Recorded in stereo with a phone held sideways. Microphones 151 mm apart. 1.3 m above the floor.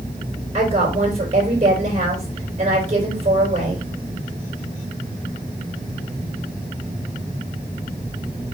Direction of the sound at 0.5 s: 45° right (ahead or behind).